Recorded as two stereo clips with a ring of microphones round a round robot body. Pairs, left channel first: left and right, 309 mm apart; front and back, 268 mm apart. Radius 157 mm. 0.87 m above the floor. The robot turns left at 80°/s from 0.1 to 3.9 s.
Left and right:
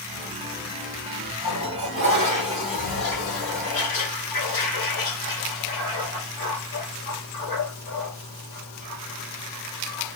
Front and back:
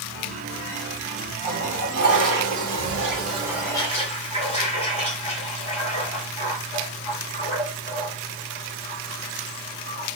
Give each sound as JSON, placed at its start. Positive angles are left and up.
{"t": 1.4, "sound": "a toilet flushing", "azimuth_deg": -95, "distance_m": 3.0}